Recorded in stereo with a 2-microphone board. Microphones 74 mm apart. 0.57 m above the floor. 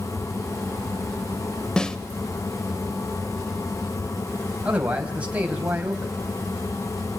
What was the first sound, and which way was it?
A snare drum, 10° left (ahead or behind).